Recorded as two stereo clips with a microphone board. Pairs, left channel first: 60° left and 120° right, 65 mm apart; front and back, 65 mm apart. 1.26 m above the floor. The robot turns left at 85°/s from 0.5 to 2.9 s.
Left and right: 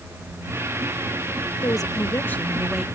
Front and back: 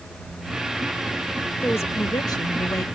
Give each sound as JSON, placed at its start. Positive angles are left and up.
{"t": 1.6, "sound": "a woman speaking", "azimuth_deg": 60}